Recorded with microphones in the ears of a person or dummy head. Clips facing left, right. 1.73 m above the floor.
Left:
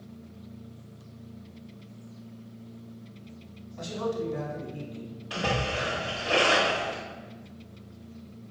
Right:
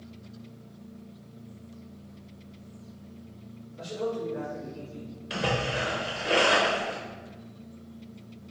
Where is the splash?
25° right (ahead or behind), 1.0 m.